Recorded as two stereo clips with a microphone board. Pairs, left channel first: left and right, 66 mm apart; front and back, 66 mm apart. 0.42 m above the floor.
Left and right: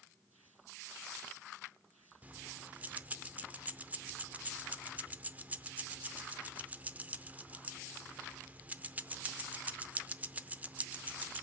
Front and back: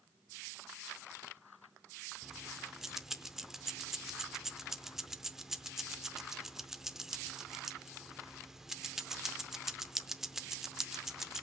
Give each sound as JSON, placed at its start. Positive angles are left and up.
{"t": 2.2, "sound": "keys jangling", "azimuth_deg": -100, "distance_m": 0.6}